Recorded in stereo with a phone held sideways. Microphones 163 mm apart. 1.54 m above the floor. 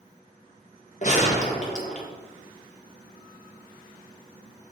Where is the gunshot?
50° left (ahead or behind), 1.3 m.